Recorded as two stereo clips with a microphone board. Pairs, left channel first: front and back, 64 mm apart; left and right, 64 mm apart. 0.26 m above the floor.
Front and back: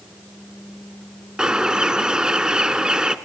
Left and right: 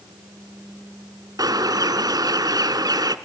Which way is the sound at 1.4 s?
105° right.